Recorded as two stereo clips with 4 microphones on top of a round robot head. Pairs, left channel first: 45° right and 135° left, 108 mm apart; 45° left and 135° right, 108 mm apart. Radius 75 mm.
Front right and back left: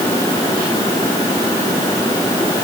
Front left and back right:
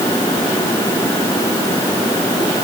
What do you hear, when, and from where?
Only background noise.